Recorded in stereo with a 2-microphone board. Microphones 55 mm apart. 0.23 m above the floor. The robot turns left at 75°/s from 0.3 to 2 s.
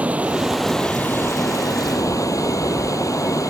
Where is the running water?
155° right; by 3.5 s 75° left.